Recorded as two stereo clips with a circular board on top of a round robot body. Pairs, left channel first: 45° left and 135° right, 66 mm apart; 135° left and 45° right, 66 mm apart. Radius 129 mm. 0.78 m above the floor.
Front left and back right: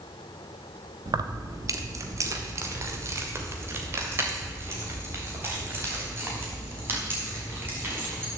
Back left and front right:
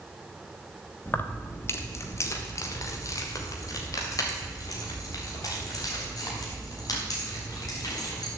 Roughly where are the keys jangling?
Behind.